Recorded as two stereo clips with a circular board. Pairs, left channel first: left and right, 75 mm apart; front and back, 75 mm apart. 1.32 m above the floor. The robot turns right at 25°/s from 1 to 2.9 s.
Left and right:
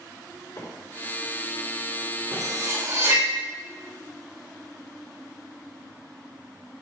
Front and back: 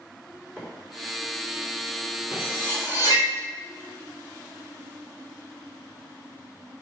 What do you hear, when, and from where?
0.6 s a microwave: 70° left, 3.5 m
2.3 s cutlery clinking: 50° right, 3 m; by 3.3 s 35° right, 3 m